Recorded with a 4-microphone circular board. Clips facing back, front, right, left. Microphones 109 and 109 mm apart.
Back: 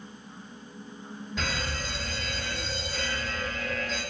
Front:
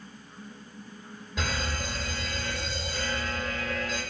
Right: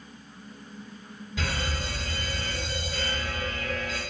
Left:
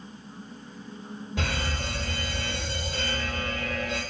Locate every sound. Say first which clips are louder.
1.4 s an alarm: front 1 dB, even; 85° left, 2.0 m